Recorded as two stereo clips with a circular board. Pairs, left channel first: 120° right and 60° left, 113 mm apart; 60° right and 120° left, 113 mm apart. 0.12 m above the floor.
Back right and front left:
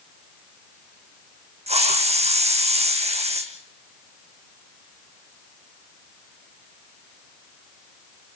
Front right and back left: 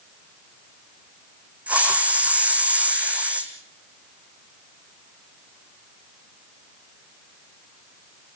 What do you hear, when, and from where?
1.7 s a hiss: 40° left, 3 m